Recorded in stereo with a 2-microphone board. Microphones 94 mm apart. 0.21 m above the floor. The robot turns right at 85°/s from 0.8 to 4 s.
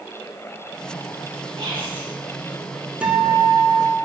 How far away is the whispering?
About 2 m.